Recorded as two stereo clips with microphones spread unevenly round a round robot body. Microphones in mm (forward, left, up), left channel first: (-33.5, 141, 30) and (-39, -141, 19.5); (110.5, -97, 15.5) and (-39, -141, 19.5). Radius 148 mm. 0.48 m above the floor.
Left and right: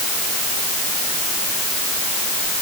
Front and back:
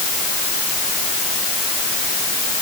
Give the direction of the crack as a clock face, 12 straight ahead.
No crack in this recording.